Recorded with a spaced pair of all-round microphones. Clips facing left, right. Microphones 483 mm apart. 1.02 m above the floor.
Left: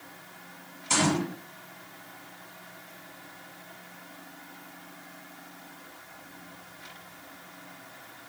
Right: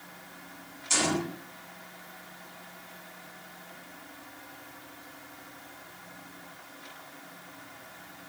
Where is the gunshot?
75° left (ahead or behind), 9 m.